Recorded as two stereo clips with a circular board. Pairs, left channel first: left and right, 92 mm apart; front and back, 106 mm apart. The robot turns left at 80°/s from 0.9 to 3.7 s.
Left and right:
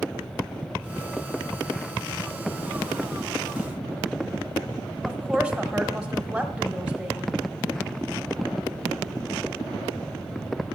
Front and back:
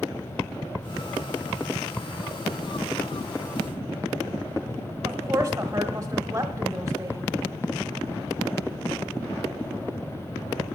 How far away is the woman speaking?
About 1.4 m.